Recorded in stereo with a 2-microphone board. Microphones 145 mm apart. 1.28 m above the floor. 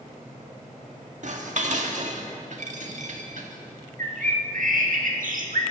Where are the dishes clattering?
60° right (ahead or behind), 1.6 m.